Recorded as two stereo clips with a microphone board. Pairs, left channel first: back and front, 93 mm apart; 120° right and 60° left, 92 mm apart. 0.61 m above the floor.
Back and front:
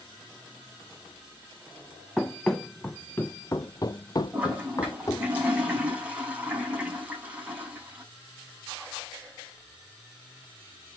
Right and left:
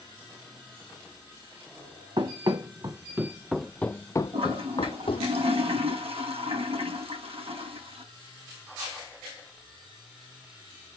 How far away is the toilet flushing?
About 6 m.